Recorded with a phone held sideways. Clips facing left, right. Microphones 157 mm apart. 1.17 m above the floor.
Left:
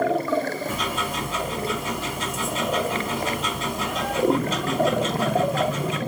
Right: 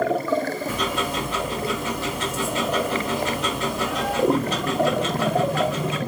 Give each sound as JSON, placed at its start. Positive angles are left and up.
{"t": 0.7, "sound": "ticking", "side_deg": -70, "distance_m": 1.6}